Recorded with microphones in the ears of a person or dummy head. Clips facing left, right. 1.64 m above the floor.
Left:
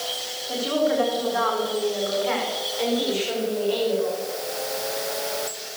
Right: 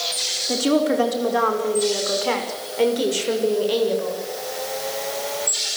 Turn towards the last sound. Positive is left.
turn(degrees=-60)  # may be behind; listen again after turning